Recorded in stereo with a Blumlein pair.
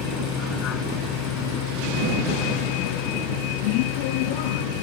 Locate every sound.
0.0 s a vehicle: 30° left; by 4.8 s 50° left